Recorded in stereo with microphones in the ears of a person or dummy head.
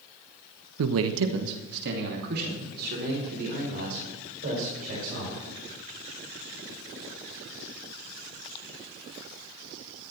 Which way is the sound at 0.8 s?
75° right (ahead or behind).